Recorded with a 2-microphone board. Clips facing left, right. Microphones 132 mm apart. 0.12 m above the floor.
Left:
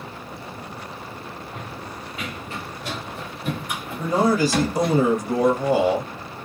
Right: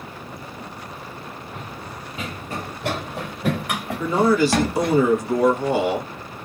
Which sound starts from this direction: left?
A man speaking, at 4.0 s.